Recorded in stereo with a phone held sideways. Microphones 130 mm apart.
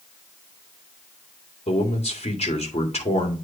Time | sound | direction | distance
1.7 | a man speaking | 50° left (ahead or behind) | 2 m